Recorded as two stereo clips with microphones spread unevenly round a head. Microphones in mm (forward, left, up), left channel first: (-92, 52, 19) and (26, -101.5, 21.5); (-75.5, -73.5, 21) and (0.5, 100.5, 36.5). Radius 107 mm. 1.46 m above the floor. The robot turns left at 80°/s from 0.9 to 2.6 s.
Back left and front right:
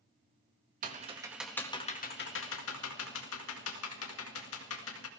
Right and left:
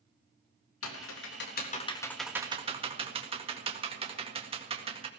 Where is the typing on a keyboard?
100° right, 2 m; by 5.1 s 125° left, 2 m.